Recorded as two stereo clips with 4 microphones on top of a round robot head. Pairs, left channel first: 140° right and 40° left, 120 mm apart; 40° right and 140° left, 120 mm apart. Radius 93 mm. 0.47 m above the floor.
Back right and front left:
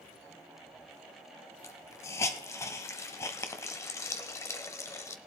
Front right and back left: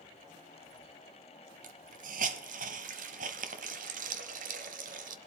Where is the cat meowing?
No cat meowing in this recording.